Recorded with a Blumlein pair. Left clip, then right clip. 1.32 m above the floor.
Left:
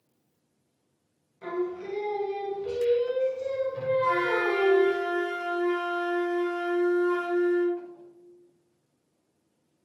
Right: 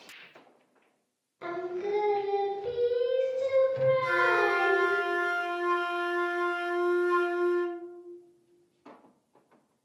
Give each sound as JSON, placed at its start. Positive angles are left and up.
{"t": 1.4, "sound": "singing", "azimuth_deg": -70, "distance_m": 0.6}
{"t": 4.0, "sound": "a flute", "azimuth_deg": -40, "distance_m": 1.9}